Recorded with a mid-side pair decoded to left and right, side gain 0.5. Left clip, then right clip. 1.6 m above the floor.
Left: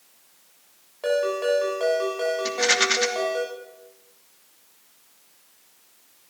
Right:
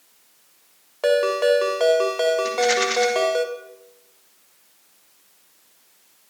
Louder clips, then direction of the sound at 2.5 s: Right 1 dB; 25° left.